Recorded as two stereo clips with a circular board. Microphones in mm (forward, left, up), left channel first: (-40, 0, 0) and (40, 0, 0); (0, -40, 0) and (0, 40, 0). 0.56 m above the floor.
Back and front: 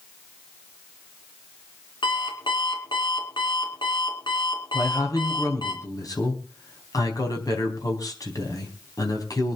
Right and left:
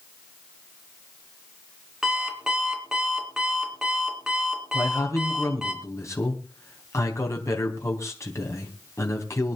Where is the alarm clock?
170° left, 3.5 m.